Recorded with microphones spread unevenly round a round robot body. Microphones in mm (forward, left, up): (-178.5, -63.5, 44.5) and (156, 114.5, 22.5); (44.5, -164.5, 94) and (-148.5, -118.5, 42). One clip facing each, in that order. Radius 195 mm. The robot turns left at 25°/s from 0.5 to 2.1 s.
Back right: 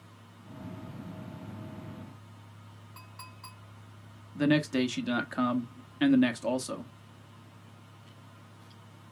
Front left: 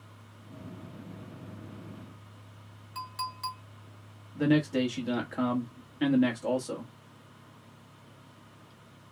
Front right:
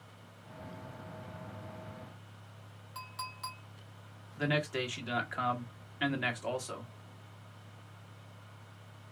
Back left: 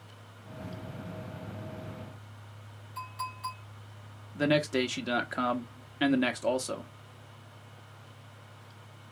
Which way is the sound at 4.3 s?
150° left.